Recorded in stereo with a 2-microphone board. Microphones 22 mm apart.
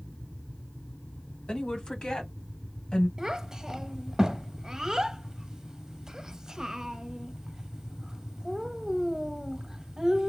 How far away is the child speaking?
About 0.7 m.